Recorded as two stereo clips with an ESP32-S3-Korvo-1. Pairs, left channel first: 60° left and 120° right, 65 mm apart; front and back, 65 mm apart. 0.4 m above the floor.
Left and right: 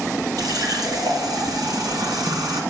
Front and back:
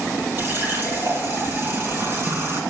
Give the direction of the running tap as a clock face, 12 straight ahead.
4 o'clock.